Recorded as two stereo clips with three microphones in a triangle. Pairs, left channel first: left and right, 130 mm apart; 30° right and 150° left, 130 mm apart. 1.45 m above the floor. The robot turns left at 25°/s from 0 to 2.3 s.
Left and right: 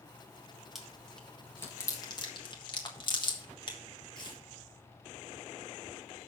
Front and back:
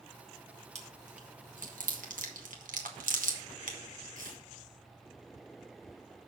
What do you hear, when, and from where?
0.8 s chewing: 175° right, 1.3 m; by 4.4 s 145° left, 1.3 m